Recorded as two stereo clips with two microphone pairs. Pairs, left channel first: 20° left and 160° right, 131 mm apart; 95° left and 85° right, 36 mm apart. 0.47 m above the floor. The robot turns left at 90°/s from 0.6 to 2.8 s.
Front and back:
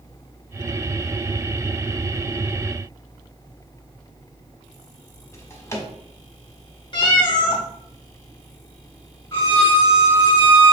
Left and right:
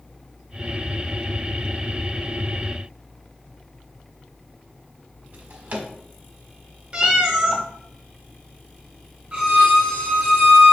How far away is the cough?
No cough in this recording.